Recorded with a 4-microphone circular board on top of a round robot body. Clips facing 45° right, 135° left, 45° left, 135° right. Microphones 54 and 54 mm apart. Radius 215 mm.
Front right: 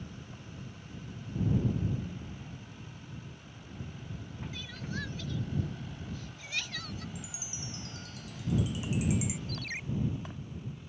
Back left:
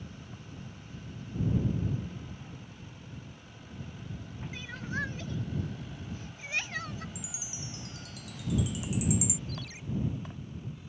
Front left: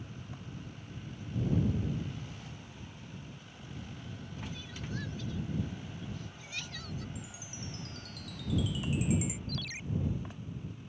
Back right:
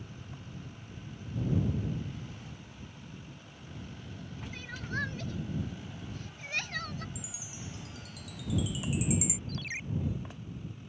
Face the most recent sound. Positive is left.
turn(degrees=-80)